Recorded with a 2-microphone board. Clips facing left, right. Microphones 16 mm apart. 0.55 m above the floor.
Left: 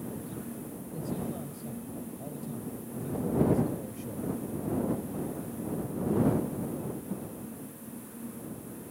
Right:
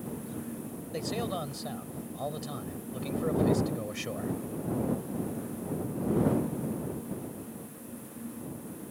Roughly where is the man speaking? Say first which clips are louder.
Right 3 dB; right.